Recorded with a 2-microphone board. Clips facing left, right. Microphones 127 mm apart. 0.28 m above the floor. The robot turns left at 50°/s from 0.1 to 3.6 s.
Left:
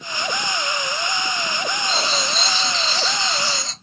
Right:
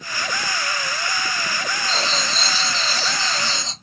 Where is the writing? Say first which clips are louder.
Even; 10° left (ahead or behind), 1.0 m; by 3.7 s 20° right (ahead or behind), 1.0 m.